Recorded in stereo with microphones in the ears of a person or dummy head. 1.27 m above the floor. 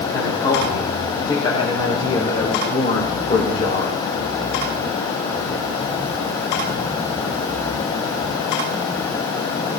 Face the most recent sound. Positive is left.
turn(degrees=35)  # may be behind; listen again after turning